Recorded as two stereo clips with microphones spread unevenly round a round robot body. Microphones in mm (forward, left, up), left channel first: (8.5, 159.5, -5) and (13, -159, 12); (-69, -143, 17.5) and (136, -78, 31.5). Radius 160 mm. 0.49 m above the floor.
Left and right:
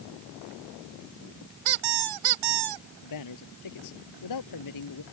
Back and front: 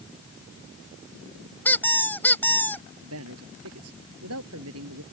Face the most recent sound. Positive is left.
turn(degrees=60)